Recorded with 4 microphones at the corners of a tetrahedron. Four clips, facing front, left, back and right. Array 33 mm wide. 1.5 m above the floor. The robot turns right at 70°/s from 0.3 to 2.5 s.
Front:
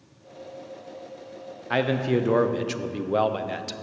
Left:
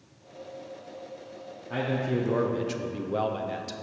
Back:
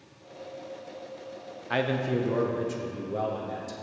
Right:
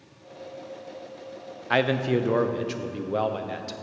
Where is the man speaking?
70° right, 0.5 m; by 3.8 s 15° right, 0.5 m.